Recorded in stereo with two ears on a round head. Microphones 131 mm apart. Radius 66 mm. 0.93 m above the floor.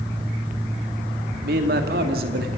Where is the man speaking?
70° right (ahead or behind), 2.5 m.